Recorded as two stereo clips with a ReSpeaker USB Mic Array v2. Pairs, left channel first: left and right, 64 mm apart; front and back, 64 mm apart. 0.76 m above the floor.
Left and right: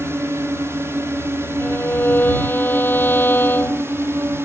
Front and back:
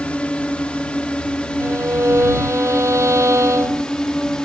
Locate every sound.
0.0 s a drone: 65° right; by 4.5 s 75° right
1.6 s a violin: 145° left